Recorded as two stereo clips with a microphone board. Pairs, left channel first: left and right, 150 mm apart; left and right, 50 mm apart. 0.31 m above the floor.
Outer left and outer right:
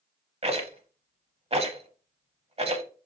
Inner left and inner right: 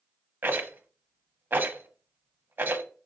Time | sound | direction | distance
0.4 | a rattle | 45° right (ahead or behind) | 0.8 m